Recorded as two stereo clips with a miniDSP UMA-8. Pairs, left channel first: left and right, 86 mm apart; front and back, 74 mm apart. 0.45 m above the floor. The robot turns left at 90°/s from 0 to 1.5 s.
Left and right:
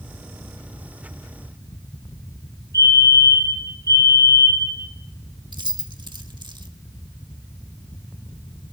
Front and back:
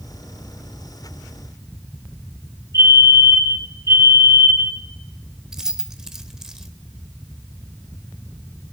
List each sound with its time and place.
2.7 s a fire alarm: 140° right, 8.5 m
5.5 s keys jangling: 95° right, 0.9 m